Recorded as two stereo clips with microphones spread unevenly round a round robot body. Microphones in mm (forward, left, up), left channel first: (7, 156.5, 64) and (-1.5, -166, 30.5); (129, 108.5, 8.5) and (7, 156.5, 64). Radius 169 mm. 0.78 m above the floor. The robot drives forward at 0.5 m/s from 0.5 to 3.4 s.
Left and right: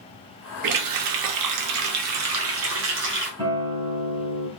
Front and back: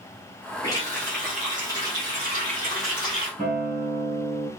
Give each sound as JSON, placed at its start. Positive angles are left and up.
{"t": 0.6, "sound": "a running tap", "azimuth_deg": -75, "distance_m": 0.8}
{"t": 3.4, "sound": "a guitar", "azimuth_deg": -170, "distance_m": 2.0}